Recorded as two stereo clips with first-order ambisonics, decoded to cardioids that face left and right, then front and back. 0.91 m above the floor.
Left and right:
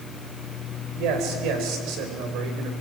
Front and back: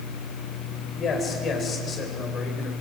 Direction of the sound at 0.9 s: 60° right.